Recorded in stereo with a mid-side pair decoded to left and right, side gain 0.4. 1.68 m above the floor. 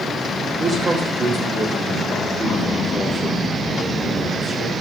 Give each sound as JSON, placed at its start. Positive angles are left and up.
{"t": 0.6, "sound": "a man speaking", "azimuth_deg": -55, "distance_m": 3.0}